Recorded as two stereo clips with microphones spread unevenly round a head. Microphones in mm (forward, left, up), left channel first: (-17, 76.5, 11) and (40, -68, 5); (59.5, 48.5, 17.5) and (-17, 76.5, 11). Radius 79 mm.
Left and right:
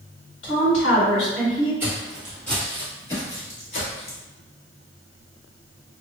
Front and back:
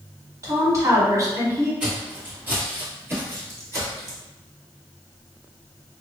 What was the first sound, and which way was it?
A woman speaking, 110° left.